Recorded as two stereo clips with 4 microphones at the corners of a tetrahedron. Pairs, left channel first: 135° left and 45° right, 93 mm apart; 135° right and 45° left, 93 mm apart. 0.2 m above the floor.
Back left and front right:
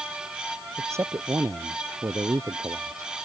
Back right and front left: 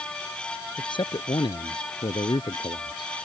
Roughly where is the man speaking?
Right.